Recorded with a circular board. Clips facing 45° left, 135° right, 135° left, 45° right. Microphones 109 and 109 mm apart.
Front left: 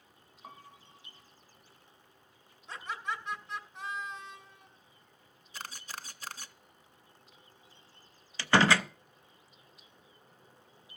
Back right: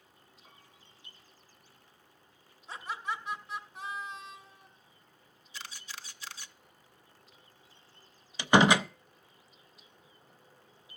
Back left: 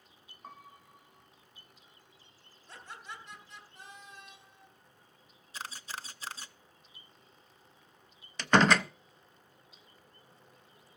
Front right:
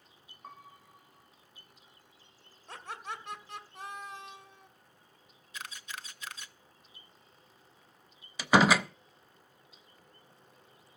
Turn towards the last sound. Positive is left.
turn(degrees=-110)